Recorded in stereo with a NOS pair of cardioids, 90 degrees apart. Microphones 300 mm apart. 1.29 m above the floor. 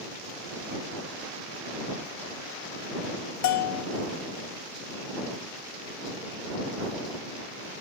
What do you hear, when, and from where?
3.4 s a bell: 70° left